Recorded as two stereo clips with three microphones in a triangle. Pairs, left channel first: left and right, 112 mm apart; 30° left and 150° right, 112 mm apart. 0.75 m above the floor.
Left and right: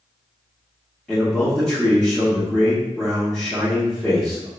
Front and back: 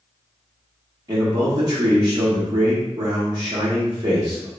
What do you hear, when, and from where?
1.1 s a man speaking: 170° left, 0.9 m